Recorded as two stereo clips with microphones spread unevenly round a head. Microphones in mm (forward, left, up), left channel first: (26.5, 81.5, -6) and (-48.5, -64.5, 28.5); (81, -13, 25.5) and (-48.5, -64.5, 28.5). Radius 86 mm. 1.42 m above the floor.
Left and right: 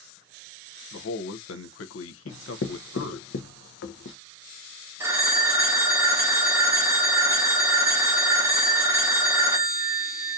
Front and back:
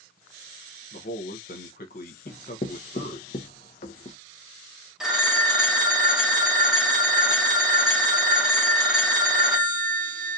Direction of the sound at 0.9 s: 65° left.